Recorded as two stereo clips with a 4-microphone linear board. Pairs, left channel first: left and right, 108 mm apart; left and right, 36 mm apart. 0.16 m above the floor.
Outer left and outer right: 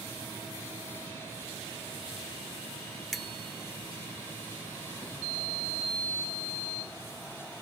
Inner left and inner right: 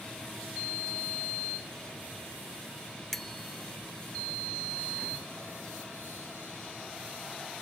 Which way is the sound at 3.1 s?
Centre (ahead or behind).